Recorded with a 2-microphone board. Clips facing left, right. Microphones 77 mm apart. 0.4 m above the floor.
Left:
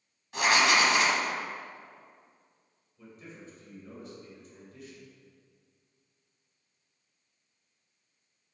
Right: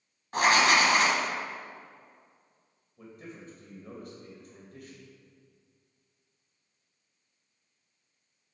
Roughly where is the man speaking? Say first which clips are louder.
Right 3 dB; right.